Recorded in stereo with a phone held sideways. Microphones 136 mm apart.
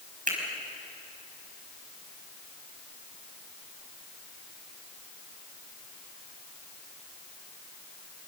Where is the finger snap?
80° right, 4.5 m.